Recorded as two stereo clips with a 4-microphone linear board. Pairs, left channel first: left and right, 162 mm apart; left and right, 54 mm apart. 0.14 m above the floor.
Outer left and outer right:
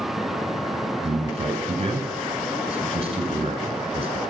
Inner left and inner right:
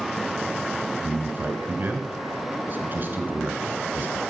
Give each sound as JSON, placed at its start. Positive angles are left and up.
{"t": 1.0, "sound": "a man speaking", "side_deg": -40, "distance_m": 1.7}